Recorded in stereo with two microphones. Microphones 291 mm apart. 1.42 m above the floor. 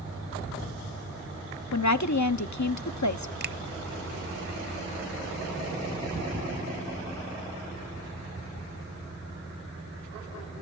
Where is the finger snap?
35° right (ahead or behind), 0.7 m.